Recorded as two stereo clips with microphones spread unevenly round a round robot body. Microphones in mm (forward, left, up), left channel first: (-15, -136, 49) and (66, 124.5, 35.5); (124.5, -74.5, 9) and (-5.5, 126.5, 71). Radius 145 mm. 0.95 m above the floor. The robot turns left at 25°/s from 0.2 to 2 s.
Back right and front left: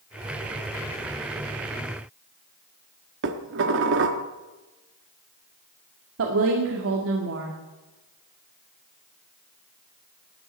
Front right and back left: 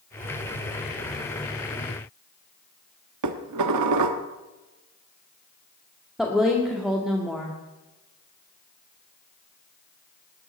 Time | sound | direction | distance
3.2 | dishes clattering | 125° left | 1.2 m
6.2 | a woman speaking | 35° left | 1.9 m